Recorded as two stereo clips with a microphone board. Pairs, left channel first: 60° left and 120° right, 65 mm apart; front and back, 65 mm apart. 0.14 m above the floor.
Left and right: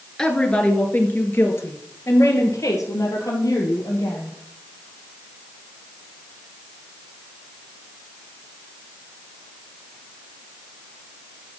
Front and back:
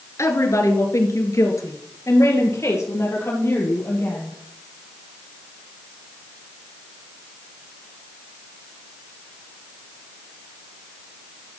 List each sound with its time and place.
0.2 s a woman speaking: 15° right, 2 m; by 4.4 s 50° left, 4.5 m